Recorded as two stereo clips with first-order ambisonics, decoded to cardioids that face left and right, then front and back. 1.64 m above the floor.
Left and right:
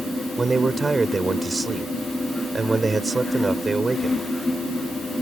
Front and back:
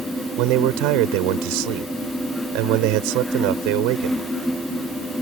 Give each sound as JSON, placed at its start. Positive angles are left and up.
{"t": 0.4, "sound": "a man speaking", "azimuth_deg": -170}